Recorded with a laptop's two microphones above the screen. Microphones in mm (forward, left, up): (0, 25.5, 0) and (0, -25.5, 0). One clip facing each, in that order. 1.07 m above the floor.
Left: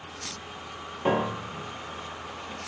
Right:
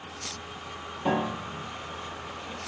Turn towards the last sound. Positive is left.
turn(degrees=30)  # may be behind; listen again after turning